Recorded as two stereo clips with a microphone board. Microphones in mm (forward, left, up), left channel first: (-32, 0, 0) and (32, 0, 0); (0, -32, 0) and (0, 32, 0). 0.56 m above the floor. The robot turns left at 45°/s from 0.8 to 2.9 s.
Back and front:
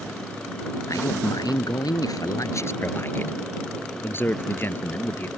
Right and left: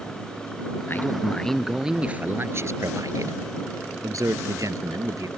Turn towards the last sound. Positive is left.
turn(degrees=125)